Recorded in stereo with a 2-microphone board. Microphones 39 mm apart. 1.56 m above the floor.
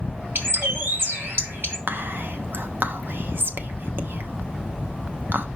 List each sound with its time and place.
0.3 s a bird: 65° right (ahead or behind), 1.2 m
1.9 s whispering: 60° right (ahead or behind), 0.8 m